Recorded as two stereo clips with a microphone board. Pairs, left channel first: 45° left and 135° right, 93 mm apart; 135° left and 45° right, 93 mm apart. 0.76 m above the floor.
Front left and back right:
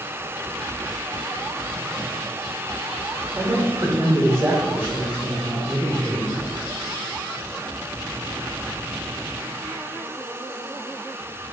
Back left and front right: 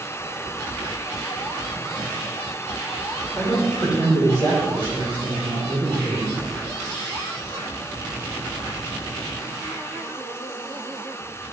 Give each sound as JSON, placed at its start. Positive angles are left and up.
{"t": 3.4, "sound": "a man speaking", "azimuth_deg": -160, "distance_m": 1.9}